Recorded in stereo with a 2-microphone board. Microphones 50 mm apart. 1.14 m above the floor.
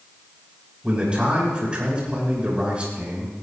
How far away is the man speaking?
About 6 m.